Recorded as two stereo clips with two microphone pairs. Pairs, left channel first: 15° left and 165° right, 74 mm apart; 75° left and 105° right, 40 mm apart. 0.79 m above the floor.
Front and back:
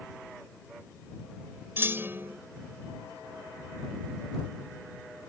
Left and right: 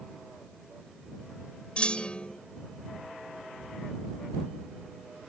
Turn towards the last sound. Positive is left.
turn(degrees=140)